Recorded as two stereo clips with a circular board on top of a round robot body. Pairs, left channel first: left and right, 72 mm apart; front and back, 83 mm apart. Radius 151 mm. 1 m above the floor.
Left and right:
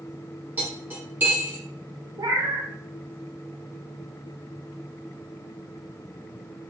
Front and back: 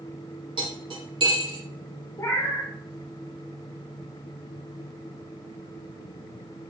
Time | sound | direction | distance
0.6 | cutlery clinking | 155° right | 1.6 m
2.2 | a cat meowing | 60° right | 0.6 m